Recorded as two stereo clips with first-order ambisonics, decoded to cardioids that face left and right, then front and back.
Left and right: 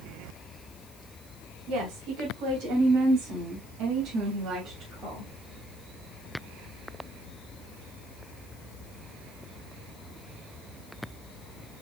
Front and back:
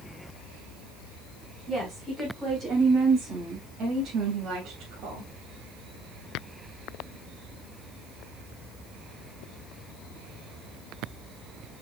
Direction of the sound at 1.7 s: 100° right.